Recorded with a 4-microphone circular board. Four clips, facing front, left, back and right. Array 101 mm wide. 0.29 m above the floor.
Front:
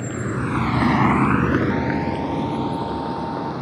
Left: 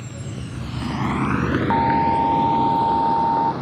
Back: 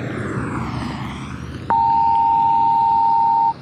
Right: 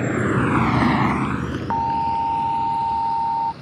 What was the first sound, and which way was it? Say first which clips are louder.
A vehicle: right 14 dB, back 1 dB; 105° right.